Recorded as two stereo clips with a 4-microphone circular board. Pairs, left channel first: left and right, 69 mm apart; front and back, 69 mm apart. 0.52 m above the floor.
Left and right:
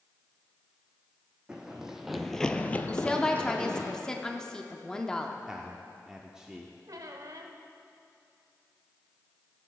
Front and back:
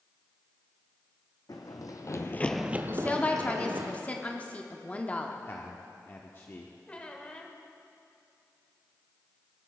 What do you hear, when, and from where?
1.5 s running footsteps: 10° right, 1.4 m; by 3.9 s 155° left, 1.8 m
2.9 s a woman speaking: 25° left, 0.7 m
5.5 s a man speaking: 20° right, 0.8 m
6.9 s a squeak: 70° right, 0.9 m